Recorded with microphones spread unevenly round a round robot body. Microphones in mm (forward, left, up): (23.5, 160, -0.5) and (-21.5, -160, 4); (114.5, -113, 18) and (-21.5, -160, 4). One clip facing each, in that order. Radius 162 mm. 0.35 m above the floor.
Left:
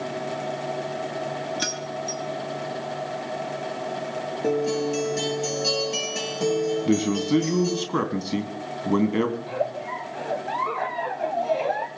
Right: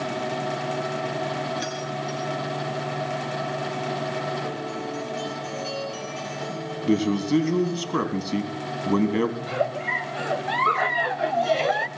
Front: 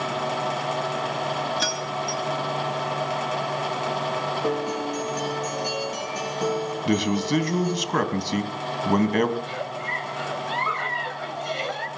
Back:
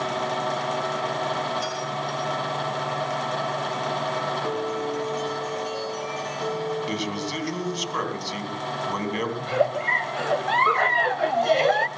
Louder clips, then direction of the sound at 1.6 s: Right 1 dB, front 1 dB; 25° left.